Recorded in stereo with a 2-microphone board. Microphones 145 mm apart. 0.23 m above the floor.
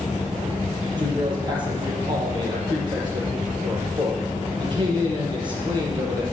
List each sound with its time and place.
1.0 s a man speaking: 35° right (ahead or behind), 5.5 m